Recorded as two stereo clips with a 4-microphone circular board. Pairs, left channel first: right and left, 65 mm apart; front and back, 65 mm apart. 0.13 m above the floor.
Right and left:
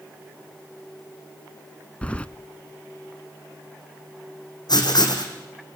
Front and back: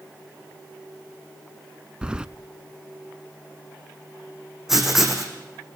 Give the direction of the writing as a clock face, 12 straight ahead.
3 o'clock.